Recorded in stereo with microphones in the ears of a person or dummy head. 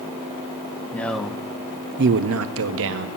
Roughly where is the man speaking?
Centre.